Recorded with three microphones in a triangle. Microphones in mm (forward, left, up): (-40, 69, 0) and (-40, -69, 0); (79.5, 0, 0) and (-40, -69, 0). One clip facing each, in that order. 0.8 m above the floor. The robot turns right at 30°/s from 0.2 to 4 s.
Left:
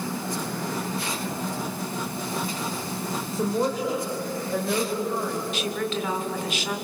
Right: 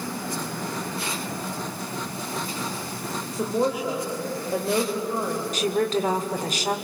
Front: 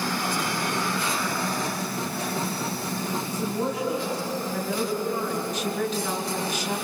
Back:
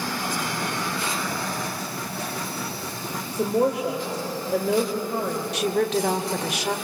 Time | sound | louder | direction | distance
3.3 | a woman speaking | right 1 dB, back 8 dB | straight behind | 4 m
5.5 | a woman speaking | right 5 dB, back 5 dB | 140° right | 2 m